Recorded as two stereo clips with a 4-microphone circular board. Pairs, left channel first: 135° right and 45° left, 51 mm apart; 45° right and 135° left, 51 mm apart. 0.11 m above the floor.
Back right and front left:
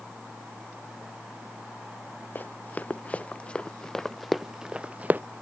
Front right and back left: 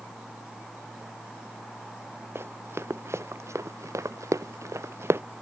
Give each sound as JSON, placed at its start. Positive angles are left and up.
{"t": 2.4, "sound": "running footsteps", "azimuth_deg": 170}